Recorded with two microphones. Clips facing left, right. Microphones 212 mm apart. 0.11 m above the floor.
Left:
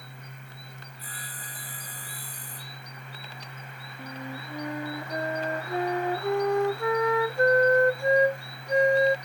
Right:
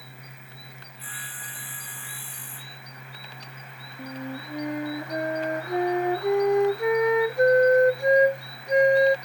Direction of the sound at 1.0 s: 40° left (ahead or behind).